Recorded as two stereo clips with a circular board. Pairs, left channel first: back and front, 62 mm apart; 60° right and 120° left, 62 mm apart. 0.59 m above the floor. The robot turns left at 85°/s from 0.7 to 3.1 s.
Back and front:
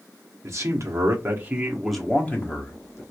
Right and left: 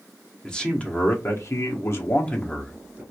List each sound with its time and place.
0.4 s a man speaking: 15° left, 1.0 m; by 3.0 s 175° left, 1.0 m